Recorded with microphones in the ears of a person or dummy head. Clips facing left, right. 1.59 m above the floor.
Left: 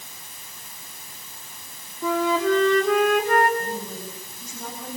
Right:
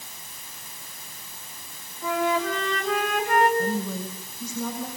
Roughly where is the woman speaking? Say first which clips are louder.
Right 4 dB; right.